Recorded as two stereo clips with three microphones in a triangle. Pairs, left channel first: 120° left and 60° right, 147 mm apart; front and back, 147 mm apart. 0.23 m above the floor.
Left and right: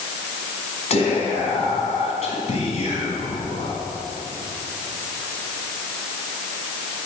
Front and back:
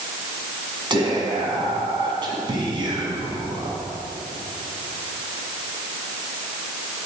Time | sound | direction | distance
0.9 | whispering | 135° left | 1.8 m